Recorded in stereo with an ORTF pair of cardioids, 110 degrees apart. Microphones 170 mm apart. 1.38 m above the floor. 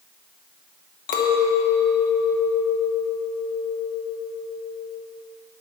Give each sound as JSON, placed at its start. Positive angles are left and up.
{"t": 1.1, "sound": "a clink", "azimuth_deg": 65, "distance_m": 1.4}